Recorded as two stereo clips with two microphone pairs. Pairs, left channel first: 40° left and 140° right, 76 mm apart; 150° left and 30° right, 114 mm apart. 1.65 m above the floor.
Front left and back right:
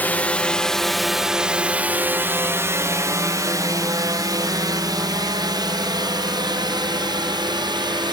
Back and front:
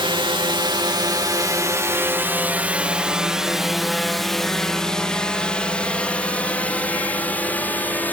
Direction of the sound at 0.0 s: 20° right.